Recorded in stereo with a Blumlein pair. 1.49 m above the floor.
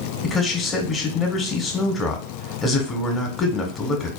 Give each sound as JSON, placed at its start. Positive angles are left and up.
{"t": 0.2, "sound": "a man speaking", "azimuth_deg": 15, "distance_m": 1.1}